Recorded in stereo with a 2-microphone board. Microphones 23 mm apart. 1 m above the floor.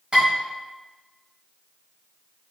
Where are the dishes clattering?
45° right (ahead or behind), 1.5 m.